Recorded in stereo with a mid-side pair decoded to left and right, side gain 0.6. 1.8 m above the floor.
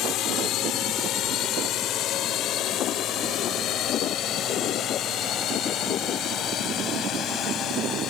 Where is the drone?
60° left; by 8.1 s 50° left.